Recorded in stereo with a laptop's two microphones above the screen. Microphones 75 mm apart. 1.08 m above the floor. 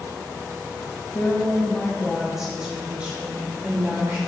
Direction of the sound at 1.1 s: 35° left (ahead or behind).